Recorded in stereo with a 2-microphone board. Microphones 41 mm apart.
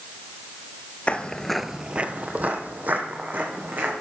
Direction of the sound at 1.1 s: 35° left (ahead or behind).